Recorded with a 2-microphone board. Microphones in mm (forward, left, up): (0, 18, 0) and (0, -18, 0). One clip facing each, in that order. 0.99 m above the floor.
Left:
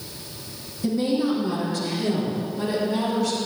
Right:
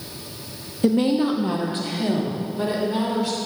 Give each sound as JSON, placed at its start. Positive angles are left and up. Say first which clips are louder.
{"t": 0.8, "sound": "a woman speaking", "louder": "right 3 dB", "side_deg": -55, "distance_m": 0.9}